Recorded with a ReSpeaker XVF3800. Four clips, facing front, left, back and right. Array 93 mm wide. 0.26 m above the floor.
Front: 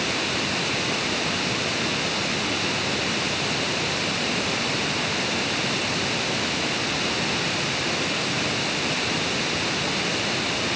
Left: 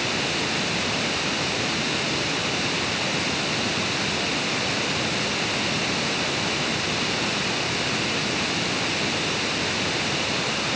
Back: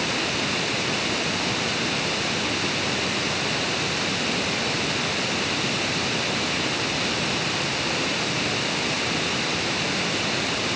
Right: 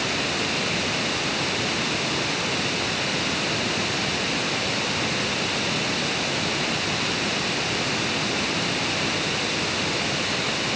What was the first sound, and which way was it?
Only background noise.